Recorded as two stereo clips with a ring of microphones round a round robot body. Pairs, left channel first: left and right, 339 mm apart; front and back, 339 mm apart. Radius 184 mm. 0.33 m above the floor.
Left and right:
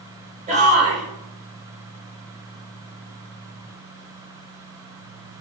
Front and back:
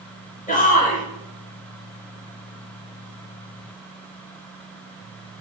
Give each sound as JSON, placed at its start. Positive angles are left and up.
{"t": 0.5, "sound": "a shout", "azimuth_deg": -40, "distance_m": 0.9}